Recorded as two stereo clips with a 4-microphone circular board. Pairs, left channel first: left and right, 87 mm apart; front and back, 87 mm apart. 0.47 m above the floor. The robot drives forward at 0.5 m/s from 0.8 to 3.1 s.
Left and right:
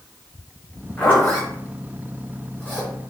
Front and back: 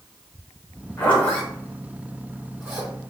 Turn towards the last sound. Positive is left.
turn(degrees=145)